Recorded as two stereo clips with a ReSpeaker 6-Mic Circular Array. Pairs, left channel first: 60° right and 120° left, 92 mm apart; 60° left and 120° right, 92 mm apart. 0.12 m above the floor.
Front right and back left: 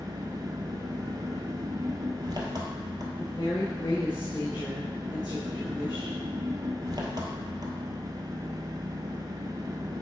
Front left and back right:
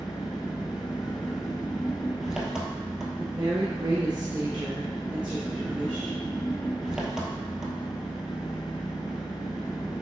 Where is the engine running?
155° left, 1.3 m.